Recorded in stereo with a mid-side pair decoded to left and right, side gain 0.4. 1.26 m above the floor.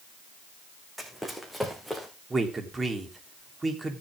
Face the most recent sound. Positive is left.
turn(degrees=-30)